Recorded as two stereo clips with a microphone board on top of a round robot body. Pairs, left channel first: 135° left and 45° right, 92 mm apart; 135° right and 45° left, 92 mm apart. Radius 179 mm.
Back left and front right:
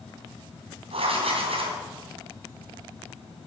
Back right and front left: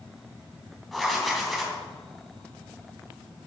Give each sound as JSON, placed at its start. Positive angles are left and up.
{"t": 0.9, "sound": "writing", "azimuth_deg": -45, "distance_m": 2.5}